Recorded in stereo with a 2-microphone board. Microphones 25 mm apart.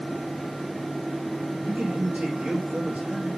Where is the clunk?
No clunk in this recording.